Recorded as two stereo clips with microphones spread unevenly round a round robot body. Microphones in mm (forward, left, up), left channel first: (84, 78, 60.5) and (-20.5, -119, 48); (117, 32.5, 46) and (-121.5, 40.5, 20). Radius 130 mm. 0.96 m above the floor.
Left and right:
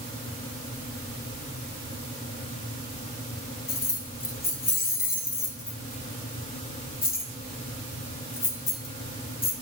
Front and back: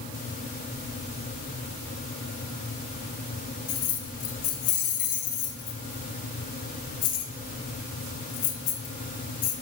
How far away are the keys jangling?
About 1.7 m.